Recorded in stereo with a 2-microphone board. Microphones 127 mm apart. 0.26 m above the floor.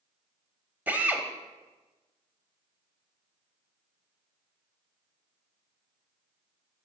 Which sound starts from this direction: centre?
A drill, at 0.9 s.